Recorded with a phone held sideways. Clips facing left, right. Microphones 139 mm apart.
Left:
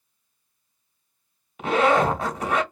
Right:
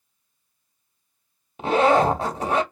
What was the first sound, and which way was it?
A zipper, 30° right (ahead or behind).